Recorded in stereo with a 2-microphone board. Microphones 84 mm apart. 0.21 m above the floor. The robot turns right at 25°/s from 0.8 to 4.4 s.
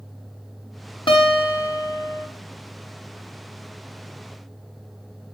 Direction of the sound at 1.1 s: 75° left (ahead or behind).